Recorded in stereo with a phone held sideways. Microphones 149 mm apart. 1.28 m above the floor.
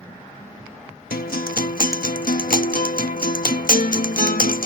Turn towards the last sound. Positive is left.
turn(degrees=75)  # may be behind; listen again after turning